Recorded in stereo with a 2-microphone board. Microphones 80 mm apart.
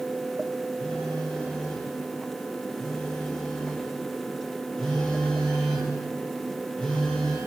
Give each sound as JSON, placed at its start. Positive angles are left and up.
{"t": 0.8, "sound": "a phone buzzing", "side_deg": 10, "distance_m": 3.0}